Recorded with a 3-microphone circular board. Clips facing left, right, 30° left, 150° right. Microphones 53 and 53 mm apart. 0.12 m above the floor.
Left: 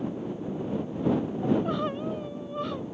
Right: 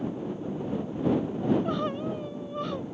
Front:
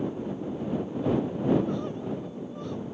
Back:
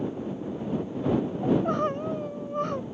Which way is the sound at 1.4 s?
175° left.